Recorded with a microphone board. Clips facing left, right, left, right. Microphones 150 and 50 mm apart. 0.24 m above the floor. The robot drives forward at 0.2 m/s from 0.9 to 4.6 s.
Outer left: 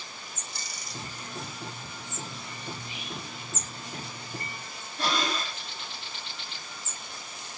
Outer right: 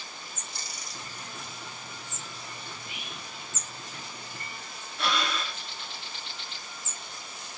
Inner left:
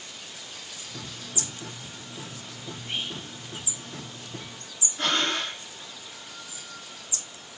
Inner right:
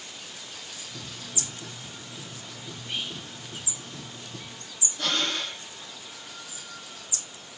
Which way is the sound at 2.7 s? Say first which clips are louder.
Outer left 4 dB, inner left 1 dB; 30° left (ahead or behind).